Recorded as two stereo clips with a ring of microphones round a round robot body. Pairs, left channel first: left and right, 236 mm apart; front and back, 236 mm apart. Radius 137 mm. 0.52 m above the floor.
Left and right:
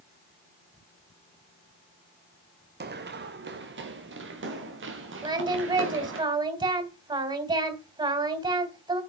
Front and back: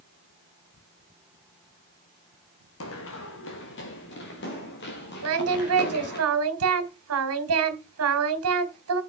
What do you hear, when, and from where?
2.8 s running footsteps: 45° right, 1.8 m; by 6.2 s 55° right, 5.5 m
5.2 s singing: 160° right, 2.5 m